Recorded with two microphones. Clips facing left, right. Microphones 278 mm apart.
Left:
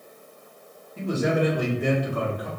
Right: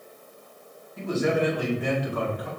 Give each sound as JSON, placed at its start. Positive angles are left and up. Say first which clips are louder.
{"t": 1.0, "sound": "a man speaking", "louder": "even", "side_deg": 35, "distance_m": 1.6}